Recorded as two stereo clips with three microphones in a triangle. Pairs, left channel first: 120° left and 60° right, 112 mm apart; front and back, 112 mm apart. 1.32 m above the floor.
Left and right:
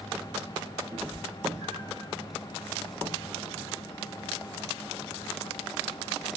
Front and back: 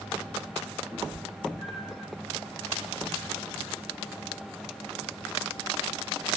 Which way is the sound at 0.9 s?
100° right.